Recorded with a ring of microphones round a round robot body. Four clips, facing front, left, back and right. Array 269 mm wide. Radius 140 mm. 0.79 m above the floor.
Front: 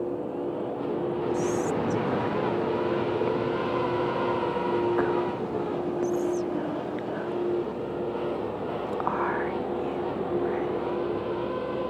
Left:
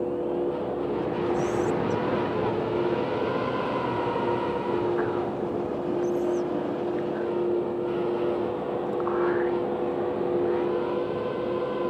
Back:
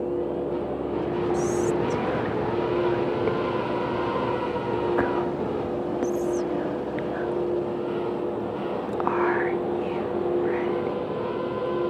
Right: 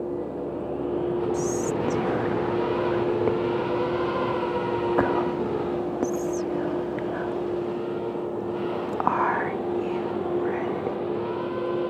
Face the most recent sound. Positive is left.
turn(degrees=-105)